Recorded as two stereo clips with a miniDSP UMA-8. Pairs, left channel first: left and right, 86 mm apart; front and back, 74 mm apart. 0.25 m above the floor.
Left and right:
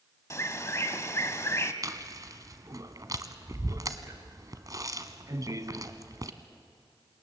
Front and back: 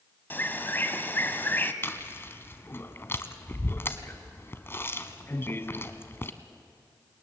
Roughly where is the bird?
Ahead left.